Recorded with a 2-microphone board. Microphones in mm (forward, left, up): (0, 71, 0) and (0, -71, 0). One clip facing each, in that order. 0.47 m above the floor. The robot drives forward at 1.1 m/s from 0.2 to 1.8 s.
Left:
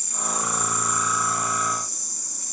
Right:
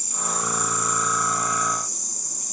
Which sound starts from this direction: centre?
An insect, at 0.0 s.